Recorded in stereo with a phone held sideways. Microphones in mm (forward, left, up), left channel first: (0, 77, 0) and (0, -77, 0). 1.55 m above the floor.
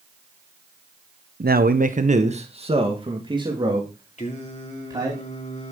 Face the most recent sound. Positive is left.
turn(degrees=45)  # may be behind; listen again after turning